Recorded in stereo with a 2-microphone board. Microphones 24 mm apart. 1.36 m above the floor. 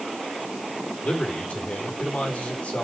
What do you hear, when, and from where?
1.0 s a man speaking: 65° left (ahead or behind), 4.5 m